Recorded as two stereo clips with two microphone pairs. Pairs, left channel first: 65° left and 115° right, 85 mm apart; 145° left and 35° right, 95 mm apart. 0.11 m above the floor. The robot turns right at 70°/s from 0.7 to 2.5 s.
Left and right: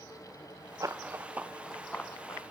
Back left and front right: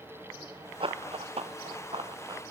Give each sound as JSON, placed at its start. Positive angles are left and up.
{"t": 0.8, "sound": "running footsteps", "azimuth_deg": -60, "distance_m": 0.7}